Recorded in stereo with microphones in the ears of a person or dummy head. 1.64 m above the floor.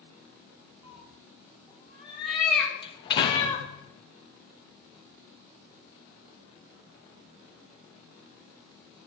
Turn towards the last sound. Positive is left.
turn(degrees=30)  # may be behind; listen again after turning